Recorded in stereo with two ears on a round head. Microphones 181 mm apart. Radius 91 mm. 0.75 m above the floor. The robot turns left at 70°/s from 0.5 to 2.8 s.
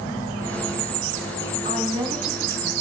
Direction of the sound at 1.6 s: 135° right.